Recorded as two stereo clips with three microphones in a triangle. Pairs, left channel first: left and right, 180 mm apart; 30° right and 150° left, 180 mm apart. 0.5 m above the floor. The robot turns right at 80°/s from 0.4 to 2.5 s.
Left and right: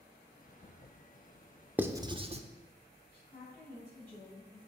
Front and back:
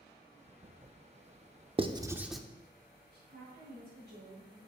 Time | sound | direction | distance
1.8 | writing | 165° right | 0.7 m
3.1 | a woman speaking | 135° left | 4.5 m